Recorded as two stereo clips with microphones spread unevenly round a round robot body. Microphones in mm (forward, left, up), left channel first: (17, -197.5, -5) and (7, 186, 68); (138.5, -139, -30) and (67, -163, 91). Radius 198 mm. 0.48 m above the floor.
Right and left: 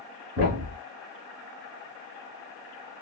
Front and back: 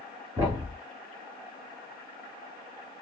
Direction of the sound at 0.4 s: 155° right.